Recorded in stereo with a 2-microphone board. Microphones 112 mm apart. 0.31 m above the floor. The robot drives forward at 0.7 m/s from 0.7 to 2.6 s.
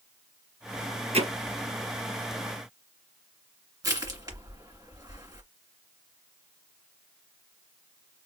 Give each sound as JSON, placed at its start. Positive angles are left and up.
{"t": 1.1, "sound": "hammering", "side_deg": -70, "distance_m": 2.5}
{"t": 3.8, "sound": "crushing", "side_deg": -35, "distance_m": 1.8}